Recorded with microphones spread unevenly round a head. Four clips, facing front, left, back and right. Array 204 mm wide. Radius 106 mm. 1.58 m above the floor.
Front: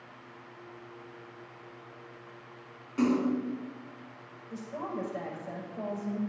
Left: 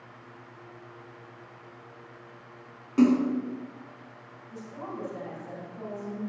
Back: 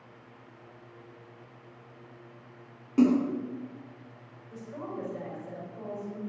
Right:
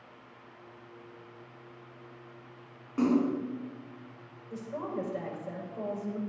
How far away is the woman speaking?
About 6 m.